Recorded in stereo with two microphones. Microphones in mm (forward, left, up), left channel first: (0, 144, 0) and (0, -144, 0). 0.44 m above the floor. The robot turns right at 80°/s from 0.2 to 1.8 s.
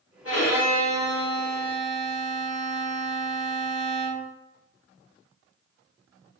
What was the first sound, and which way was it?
A violin, 55° left.